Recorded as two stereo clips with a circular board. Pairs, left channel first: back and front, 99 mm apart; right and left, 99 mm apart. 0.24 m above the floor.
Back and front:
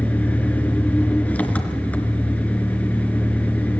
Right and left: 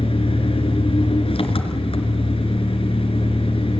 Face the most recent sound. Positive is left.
turn(degrees=-105)